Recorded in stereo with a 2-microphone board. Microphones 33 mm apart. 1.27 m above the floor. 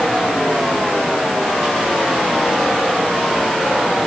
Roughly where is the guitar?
No guitar in this recording.